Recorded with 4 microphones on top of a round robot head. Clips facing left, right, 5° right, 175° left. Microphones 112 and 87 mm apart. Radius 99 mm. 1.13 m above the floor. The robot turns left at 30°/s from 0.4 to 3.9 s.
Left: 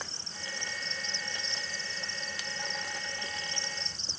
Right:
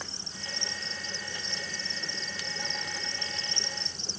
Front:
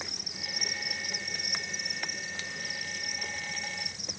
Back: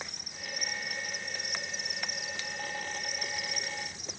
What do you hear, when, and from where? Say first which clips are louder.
0.0 s an insect: right 1 dB, front 1 dB; 15° right; by 4.2 s 120° right